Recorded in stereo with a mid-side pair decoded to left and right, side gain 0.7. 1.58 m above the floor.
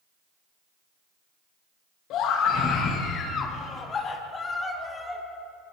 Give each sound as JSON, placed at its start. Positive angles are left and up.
{"t": 2.1, "sound": "a scream", "azimuth_deg": 55, "distance_m": 2.5}